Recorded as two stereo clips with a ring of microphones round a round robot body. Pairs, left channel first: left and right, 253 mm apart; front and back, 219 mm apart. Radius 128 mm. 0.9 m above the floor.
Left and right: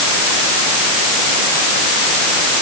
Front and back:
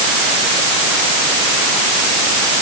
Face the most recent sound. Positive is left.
No sound to turn to.